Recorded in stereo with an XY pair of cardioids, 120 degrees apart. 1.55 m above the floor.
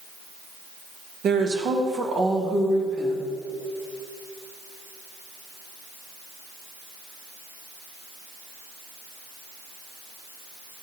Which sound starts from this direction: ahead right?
A woman speaking, at 1.2 s.